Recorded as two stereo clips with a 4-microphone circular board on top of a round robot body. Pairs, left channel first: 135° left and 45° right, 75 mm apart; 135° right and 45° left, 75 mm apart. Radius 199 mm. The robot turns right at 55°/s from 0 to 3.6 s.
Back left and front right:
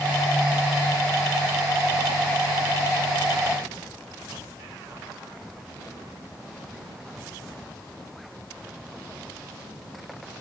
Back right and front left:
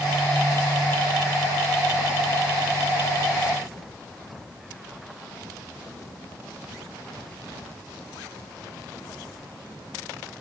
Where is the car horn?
No car horn in this recording.